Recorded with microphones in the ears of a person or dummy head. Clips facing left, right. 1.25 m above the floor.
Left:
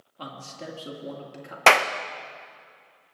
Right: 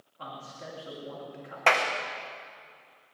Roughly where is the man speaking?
Left.